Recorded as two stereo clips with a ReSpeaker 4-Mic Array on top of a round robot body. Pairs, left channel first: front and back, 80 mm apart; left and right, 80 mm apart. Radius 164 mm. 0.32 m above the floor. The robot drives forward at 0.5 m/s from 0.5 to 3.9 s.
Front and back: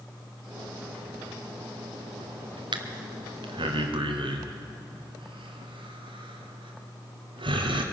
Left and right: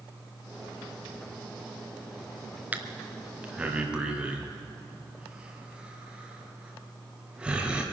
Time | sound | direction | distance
2.7 | breathing | 160° right | 0.9 m